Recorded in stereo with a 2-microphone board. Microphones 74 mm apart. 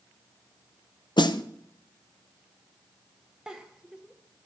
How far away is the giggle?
About 1.2 m.